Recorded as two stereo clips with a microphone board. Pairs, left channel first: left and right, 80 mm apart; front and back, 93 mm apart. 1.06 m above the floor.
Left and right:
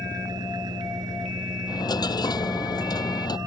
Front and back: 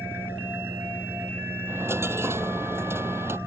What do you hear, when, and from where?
0.0 s an engine running: 115° right
1.7 s a dropped coin: 120° left